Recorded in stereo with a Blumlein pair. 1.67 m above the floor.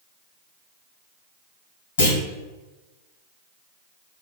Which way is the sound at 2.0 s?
70° left.